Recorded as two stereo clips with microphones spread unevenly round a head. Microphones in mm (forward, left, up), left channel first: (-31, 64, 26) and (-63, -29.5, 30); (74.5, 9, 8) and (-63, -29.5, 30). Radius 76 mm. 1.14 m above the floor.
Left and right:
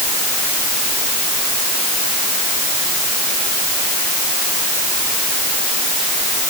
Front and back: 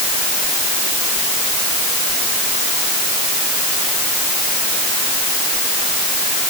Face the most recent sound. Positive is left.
No sound to turn to.